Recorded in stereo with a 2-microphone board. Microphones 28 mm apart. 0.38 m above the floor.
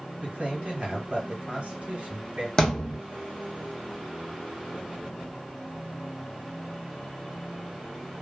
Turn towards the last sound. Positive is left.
turn(degrees=20)  # may be behind; listen again after turning